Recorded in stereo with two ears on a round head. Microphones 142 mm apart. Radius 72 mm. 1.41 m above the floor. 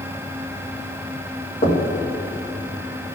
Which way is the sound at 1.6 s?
40° left (ahead or behind).